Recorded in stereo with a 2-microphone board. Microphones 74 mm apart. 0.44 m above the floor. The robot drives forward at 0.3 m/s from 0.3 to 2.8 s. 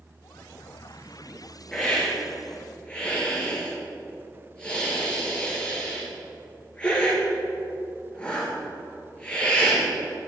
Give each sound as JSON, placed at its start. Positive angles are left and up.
{"t": 1.7, "sound": "a hiss", "side_deg": 15, "distance_m": 2.5}